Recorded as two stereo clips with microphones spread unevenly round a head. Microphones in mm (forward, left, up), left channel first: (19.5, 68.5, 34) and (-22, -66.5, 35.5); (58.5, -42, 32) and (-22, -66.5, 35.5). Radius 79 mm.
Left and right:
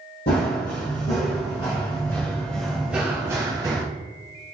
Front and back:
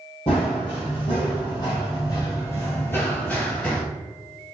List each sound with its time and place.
0.3 s running footsteps: 60° left, 1.7 m; by 3.8 s 65° right, 1.3 m